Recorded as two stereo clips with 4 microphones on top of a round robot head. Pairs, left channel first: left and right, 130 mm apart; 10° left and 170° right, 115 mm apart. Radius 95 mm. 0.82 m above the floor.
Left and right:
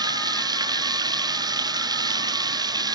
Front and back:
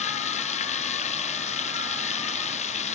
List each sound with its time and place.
0.0 s running water: 30° right